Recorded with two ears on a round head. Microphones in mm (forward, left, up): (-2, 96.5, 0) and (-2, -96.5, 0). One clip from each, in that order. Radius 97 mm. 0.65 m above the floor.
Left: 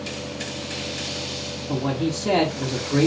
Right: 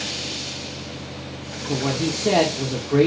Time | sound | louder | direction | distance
1.7 | a man speaking | right 2 dB | 5° right (ahead or behind) | 1.7 m